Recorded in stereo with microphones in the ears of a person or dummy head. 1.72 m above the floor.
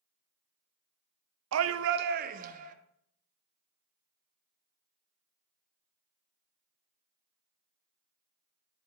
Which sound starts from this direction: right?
A shout, at 1.5 s.